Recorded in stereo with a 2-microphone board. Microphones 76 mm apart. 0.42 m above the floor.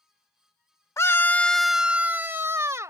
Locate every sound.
1.0 s a scream: 40° left (ahead or behind); by 2.9 s 45° right (ahead or behind)